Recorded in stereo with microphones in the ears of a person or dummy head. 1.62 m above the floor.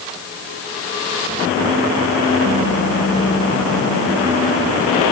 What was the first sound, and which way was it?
Only background noise.